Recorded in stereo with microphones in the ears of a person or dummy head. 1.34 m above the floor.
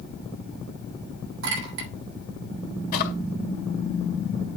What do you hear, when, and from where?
1.4 s a clink: 75° right (ahead or behind), 3 m
2.9 s a drawer: 50° left (ahead or behind), 1.9 m